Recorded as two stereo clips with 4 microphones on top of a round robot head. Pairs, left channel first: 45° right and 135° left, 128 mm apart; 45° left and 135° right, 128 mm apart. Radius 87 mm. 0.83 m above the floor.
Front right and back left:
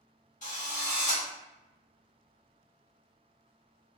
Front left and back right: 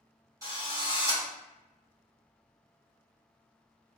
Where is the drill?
70° right, 1.8 m.